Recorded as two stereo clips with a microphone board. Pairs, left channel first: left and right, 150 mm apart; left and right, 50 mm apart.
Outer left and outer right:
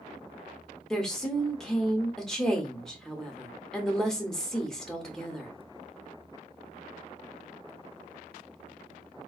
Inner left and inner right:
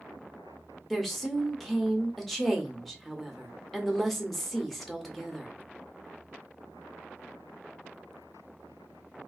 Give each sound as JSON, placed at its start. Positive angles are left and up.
{"t": 0.9, "sound": "a woman speaking", "side_deg": 5, "distance_m": 0.9}